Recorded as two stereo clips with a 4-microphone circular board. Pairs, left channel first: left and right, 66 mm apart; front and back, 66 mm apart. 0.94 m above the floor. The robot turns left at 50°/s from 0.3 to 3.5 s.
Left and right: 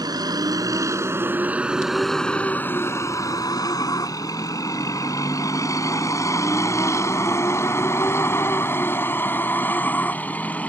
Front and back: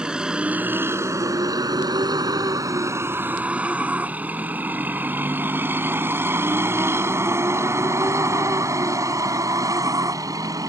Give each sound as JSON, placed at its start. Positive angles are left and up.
{"t": 0.0, "sound": "a vehicle", "azimuth_deg": -105}